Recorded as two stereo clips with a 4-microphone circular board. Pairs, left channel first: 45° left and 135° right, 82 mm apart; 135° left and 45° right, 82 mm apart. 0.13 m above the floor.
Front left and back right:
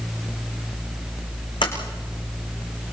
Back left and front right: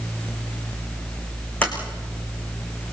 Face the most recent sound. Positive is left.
turn(degrees=60)